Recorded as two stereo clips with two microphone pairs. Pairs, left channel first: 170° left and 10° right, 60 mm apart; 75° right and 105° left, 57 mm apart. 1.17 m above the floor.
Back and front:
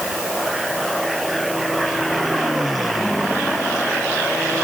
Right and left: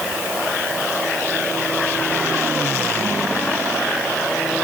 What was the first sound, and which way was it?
Only background noise.